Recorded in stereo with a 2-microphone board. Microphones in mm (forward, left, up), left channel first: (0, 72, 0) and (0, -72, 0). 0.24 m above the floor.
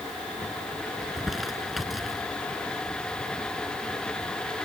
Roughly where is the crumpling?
Centre.